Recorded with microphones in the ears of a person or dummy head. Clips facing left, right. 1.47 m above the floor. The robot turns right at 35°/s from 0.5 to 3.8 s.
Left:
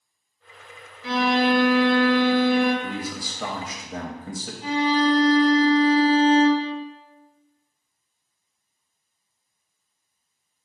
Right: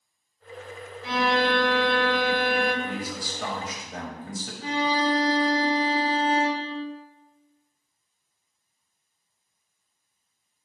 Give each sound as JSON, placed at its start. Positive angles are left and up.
{"t": 1.0, "sound": "a violin", "azimuth_deg": 80, "distance_m": 0.9}
{"t": 2.8, "sound": "a man speaking", "azimuth_deg": 65, "distance_m": 0.8}
{"t": 4.6, "sound": "a violin", "side_deg": -55, "distance_m": 1.2}